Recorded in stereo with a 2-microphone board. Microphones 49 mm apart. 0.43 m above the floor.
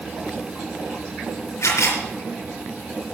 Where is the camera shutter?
75° left (ahead or behind), 4.5 m.